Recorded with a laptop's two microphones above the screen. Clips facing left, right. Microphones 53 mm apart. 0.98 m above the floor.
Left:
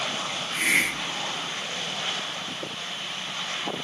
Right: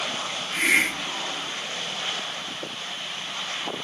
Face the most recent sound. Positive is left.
turn(degrees=-70)  # may be behind; listen again after turning